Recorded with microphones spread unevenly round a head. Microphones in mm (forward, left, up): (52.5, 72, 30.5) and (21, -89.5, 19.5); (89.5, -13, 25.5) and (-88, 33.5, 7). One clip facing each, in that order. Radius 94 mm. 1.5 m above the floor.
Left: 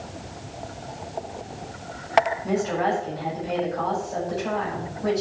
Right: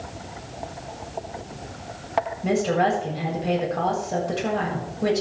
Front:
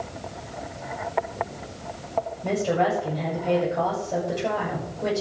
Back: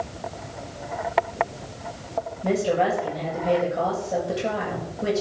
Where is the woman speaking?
110° right, 7.5 m.